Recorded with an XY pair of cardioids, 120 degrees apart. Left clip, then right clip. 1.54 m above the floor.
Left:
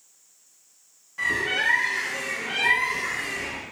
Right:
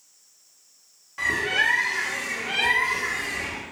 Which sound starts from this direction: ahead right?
A bird, at 1.2 s.